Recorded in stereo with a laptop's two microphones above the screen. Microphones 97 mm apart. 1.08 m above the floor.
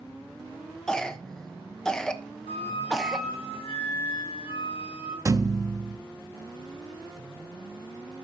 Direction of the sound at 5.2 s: 35° right (ahead or behind).